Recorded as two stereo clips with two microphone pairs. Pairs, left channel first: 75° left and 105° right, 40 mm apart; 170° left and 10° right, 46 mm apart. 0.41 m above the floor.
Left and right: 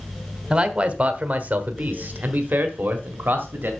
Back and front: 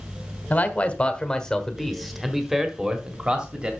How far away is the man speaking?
About 1.2 m.